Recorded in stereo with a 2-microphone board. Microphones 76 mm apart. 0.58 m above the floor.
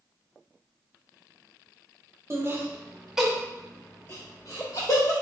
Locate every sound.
2.3 s laughter: 40° right (ahead or behind), 1.1 m; by 5.1 s 50° left (ahead or behind), 1.4 m